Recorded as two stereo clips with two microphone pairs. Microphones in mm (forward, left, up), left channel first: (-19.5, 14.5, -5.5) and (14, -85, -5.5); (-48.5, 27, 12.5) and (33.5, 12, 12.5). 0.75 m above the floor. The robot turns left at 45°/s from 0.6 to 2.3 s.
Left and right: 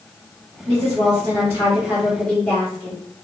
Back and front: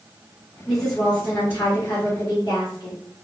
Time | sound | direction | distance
0.7 | a woman speaking | 100° right | 1.7 m